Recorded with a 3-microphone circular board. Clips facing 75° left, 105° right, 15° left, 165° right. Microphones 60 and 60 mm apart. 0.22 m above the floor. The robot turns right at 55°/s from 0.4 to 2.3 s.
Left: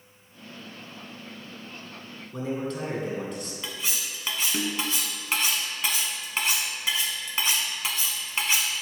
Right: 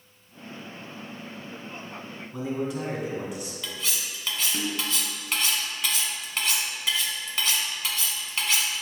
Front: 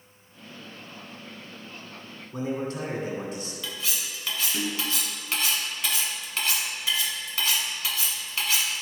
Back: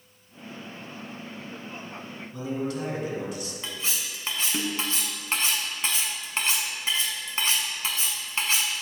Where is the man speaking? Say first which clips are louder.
Right 1 dB, front 1 dB; 30° right, 2 m.